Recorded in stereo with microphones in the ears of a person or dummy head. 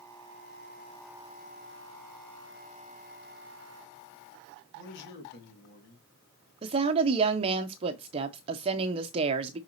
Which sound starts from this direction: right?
A woman speaking, at 6.6 s.